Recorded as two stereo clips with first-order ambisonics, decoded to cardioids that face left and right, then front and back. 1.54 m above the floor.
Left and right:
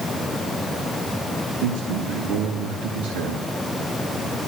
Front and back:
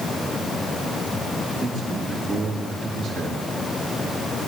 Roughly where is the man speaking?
Right.